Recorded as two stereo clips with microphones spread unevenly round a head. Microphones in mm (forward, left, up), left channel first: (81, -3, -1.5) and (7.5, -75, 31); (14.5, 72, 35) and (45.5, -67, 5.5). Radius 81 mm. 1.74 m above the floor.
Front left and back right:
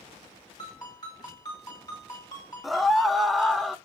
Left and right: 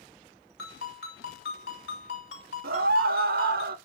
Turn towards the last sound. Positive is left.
turn(degrees=-55)